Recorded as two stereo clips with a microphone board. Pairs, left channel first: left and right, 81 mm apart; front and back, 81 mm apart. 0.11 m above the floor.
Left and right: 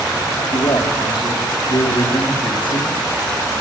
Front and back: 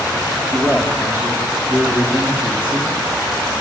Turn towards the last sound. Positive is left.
turn(degrees=110)